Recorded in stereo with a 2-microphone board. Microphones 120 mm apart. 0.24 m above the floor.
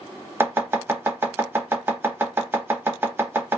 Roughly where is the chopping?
Centre.